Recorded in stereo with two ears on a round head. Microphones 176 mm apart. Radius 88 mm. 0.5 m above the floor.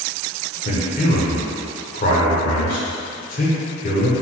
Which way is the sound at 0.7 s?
45° left (ahead or behind).